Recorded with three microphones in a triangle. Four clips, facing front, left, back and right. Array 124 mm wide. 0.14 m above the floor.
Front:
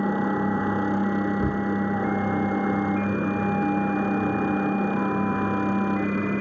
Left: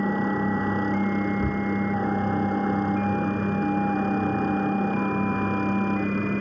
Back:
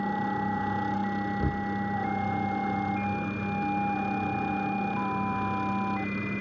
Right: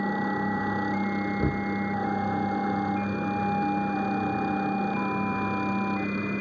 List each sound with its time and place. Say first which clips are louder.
0.0 s a helicopter: left 3 dB, front 5 dB; 15° left
1.4 s knocking: left 2 dB, front 5 dB; 65° right